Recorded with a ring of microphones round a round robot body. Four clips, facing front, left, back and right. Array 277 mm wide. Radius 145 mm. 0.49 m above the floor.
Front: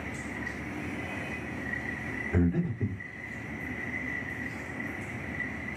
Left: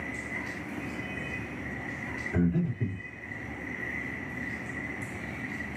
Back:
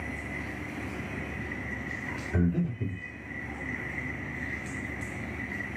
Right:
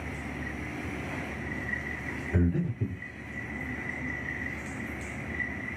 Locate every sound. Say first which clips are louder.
2.3 s breathing: left 1 dB, front 1 dB; straight ahead, 1.6 m